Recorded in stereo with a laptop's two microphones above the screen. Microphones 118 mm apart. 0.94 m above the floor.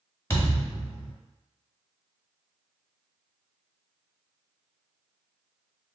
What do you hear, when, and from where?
0.3 s a thud: 20° left (ahead or behind), 1.0 m